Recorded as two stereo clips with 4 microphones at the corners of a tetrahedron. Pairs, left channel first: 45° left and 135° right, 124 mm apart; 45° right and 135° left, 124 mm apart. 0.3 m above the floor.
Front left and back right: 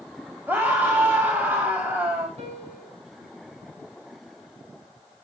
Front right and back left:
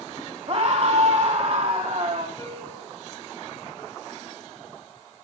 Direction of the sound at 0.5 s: 150° left.